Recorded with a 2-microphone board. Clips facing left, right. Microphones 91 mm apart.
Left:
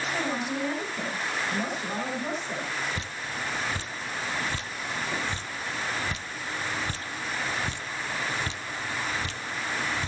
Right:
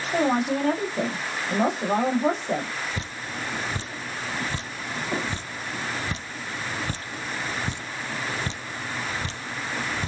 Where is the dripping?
35° right (ahead or behind), 0.8 m.